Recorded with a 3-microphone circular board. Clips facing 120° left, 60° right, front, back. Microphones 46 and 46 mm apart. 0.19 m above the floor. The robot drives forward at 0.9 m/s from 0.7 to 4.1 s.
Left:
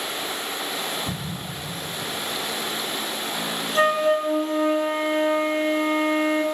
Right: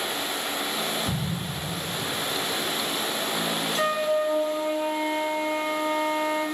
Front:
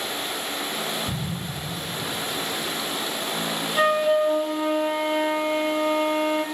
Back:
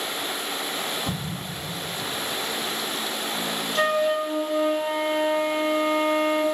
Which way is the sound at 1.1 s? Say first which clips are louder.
Right 1 dB, even; 165° right.